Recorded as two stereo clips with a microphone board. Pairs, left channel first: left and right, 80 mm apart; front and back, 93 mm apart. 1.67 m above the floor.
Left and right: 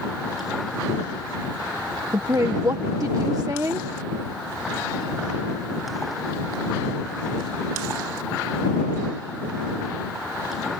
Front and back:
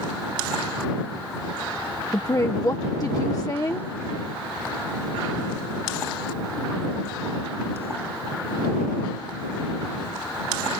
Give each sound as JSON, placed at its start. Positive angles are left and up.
{"t": 2.1, "sound": "a woman speaking", "azimuth_deg": -50}